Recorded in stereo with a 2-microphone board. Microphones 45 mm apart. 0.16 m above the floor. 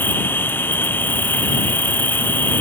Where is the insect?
50° left (ahead or behind).